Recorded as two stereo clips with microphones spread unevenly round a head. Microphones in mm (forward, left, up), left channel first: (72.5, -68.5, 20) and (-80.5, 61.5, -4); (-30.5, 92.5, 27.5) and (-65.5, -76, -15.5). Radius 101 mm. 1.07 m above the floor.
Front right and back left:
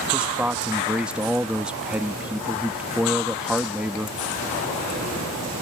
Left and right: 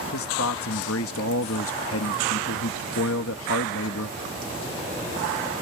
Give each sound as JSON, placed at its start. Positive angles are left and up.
{"t": 0.1, "sound": "a man speaking", "azimuth_deg": 55}